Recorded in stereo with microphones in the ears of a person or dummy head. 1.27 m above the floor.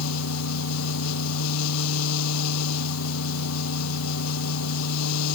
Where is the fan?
85° left.